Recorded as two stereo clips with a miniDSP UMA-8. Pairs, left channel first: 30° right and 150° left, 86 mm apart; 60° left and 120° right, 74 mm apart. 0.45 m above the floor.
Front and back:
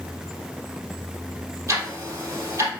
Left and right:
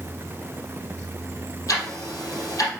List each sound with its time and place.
1.7 s ticking: 100° left, 3.5 m